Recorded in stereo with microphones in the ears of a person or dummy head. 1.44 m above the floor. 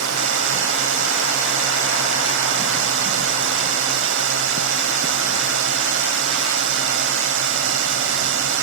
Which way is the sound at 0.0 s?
90° right.